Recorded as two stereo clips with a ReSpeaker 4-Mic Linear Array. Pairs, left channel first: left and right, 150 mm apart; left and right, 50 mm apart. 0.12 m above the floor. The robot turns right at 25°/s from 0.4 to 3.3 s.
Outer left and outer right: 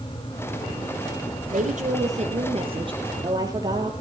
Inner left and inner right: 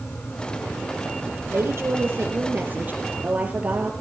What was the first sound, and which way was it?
A woman speaking, 75° right.